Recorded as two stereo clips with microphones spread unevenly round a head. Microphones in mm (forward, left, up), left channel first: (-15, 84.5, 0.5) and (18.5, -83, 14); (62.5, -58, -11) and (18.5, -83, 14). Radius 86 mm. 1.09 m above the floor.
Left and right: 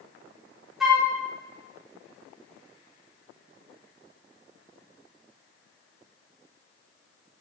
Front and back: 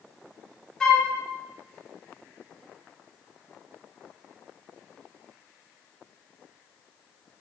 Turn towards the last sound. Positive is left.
turn(degrees=15)